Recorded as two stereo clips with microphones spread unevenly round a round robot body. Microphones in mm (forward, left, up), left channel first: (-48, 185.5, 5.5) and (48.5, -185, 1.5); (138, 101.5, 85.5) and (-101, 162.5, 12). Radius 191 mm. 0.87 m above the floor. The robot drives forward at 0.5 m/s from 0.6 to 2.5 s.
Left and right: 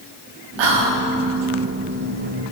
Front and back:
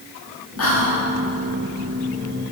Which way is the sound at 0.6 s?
65° right.